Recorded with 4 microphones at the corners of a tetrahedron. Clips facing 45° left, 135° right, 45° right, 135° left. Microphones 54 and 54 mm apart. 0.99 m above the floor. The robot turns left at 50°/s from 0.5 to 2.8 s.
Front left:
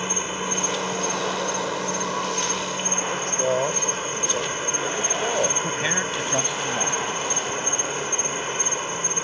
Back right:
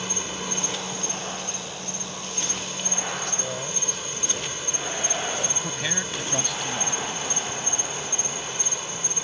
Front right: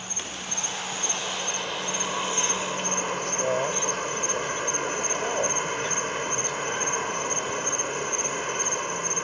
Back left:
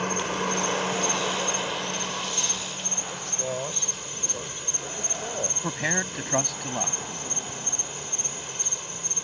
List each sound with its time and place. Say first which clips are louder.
0.0 s an insect: front left 4 dB, back left 10 dB; 110° left; by 9.2 s 5° right
3.1 s a man speaking: front left 8 dB, front right 4 dB; 25° left
5.6 s a man speaking: front left 5 dB, even; 115° left